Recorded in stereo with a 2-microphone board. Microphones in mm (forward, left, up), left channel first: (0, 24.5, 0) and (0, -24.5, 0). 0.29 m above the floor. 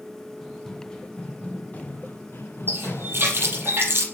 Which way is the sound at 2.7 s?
50° right (ahead or behind).